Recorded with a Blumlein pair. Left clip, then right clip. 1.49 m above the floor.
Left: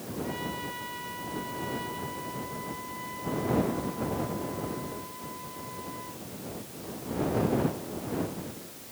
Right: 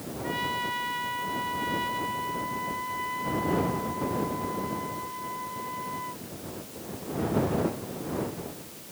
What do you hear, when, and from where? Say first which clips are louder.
0.2 s a trumpet: right 8 dB; 70° right